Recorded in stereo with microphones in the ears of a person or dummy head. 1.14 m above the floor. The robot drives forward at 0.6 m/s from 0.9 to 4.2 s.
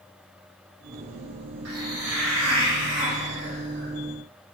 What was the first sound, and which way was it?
A hiss, 75° right (ahead or behind).